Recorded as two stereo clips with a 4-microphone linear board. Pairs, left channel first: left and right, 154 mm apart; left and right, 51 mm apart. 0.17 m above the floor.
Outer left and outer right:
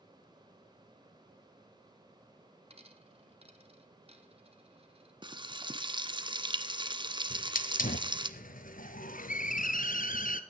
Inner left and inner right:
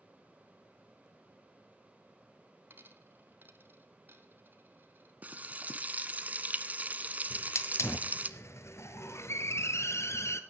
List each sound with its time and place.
2.7 s a dropped coin: 45° right (ahead or behind), 1.3 m
5.2 s frying: 35° right (ahead or behind), 0.8 m
7.3 s a hiss: 70° left (ahead or behind), 1.0 m